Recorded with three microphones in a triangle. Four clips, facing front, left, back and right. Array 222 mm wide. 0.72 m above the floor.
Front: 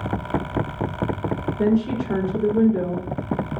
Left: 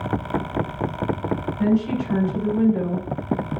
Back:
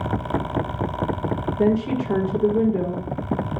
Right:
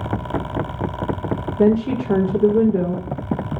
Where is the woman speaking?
100° right, 1.7 m.